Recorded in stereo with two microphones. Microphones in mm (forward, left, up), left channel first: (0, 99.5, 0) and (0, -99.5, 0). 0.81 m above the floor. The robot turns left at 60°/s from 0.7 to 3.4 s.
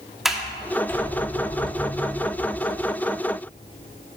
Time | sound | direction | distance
0.2 | a sliding door | centre (ahead or behind) | 1.1 m